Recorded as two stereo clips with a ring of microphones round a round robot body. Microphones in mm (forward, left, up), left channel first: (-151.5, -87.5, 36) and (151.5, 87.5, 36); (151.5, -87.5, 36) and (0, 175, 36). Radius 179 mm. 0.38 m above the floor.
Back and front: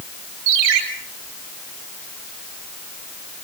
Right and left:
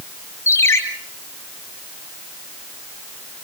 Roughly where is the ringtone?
Ahead.